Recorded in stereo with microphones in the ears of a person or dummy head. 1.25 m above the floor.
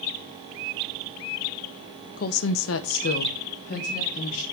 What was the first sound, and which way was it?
A woman speaking, 45° left (ahead or behind).